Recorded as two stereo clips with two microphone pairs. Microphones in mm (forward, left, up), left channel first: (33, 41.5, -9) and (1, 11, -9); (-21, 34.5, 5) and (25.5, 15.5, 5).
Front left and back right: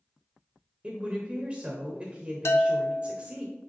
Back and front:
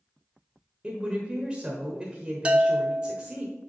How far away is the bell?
About 0.6 m.